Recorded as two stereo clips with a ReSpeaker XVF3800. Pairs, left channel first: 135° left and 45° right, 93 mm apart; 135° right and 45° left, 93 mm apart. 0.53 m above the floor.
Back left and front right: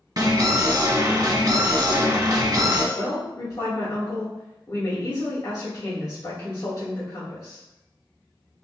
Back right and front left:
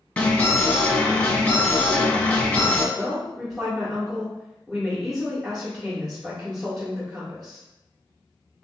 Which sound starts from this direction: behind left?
A woman speaking, at 3.0 s.